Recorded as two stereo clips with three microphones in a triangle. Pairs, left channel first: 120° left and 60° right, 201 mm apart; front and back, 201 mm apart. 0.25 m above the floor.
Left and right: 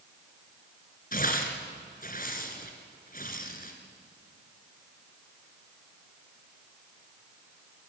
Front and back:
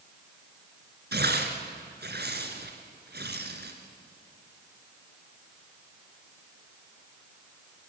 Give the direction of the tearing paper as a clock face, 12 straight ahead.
7 o'clock.